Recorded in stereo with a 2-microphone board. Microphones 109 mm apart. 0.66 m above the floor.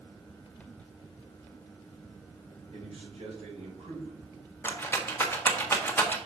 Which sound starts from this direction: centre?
A rattle, at 4.6 s.